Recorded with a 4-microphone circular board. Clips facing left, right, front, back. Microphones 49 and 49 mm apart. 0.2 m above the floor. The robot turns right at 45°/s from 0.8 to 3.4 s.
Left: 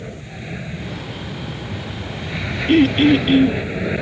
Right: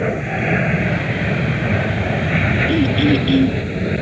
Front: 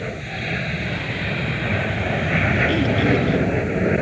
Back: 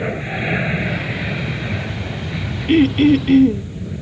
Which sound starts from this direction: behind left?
Throat clearing, at 2.7 s.